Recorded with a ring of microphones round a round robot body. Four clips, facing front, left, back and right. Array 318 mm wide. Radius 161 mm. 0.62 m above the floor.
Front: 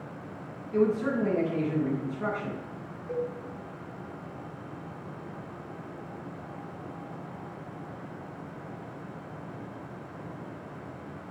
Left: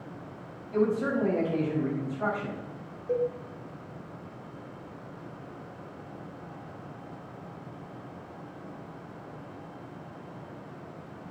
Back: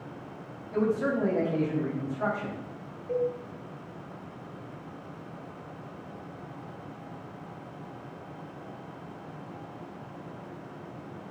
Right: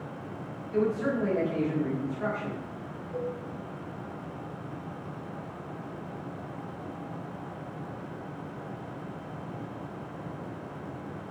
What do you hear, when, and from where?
0.7 s a man speaking: 160° left, 5 m
3.1 s a cowbell: 80° left, 3 m